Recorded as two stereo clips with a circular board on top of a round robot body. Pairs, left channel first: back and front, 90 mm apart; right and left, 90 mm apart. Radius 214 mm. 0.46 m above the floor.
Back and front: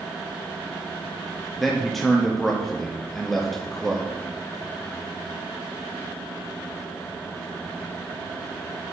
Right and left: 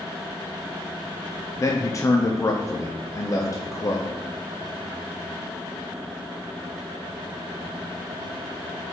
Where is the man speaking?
95° right, 1.1 m.